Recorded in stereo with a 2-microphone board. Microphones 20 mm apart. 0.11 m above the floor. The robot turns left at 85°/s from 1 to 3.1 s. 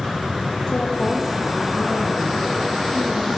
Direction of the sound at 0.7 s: 50° left.